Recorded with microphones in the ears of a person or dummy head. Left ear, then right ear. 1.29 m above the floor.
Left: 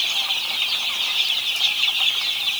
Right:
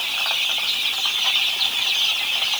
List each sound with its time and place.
Only background noise.